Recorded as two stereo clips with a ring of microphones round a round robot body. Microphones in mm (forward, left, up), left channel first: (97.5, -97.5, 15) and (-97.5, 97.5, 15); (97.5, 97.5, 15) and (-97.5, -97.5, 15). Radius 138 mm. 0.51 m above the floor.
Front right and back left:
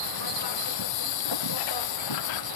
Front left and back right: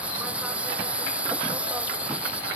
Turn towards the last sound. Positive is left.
turn(degrees=-50)